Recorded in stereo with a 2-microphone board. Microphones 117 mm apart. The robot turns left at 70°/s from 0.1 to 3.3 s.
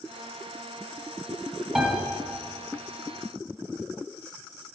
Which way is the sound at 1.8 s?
Centre (ahead or behind).